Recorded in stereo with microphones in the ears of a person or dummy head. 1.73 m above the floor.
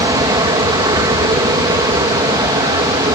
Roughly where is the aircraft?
Centre.